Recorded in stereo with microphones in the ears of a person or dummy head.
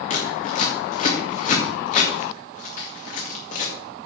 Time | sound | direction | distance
0.1 | scissors | 50° left (ahead or behind) | 2 m